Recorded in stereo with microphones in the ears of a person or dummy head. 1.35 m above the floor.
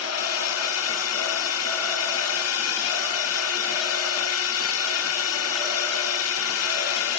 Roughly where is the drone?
Left.